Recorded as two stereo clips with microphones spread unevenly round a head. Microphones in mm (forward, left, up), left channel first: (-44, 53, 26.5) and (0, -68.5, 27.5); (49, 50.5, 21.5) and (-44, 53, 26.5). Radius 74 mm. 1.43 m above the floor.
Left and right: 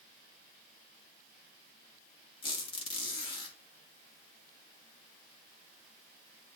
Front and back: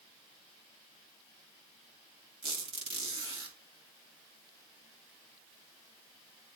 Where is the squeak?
160° left, 2.5 m.